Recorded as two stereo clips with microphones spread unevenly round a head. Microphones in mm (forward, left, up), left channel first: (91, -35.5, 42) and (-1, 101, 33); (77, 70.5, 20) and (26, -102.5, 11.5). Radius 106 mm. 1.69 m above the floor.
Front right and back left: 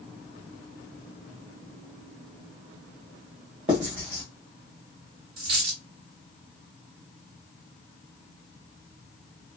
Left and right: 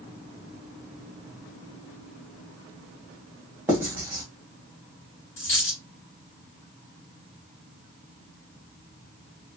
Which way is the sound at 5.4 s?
125° left.